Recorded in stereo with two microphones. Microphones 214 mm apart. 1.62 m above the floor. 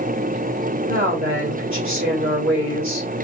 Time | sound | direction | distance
0.9 | a woman speaking | 70° right (ahead or behind) | 1.8 m